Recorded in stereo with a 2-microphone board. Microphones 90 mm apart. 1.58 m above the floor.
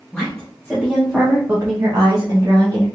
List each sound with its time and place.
0.1 s a woman speaking: 10° left (ahead or behind), 1.4 m; by 2.9 s 65° right (ahead or behind), 1.2 m